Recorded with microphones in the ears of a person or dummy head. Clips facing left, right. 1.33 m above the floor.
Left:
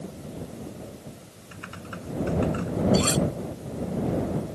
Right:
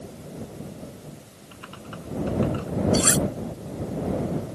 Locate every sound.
1.5 s typing on a keyboard: 25° left (ahead or behind)
2.9 s cutlery clinking: 15° right (ahead or behind)